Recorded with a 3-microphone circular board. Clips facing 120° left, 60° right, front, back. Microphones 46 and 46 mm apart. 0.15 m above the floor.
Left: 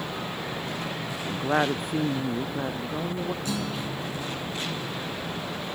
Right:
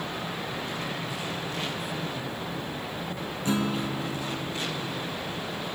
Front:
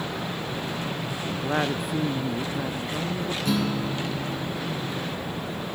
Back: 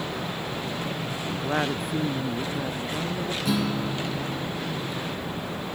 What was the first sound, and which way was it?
A woman speaking, 90° left.